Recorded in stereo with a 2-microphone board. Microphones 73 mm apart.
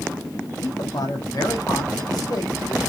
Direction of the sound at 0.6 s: 60° left (ahead or behind).